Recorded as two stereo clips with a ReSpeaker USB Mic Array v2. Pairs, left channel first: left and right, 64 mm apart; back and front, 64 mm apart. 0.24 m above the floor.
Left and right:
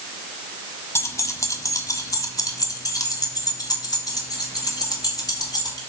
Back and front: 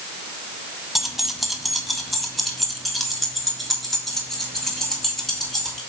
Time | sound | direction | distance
0.9 | keys jangling | 85° left | 0.9 m